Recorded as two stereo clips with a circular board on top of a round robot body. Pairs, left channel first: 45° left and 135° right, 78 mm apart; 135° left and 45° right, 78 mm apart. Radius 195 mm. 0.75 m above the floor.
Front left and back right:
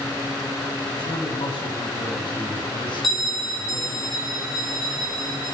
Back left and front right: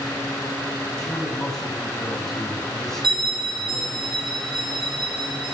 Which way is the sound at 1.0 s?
50° left.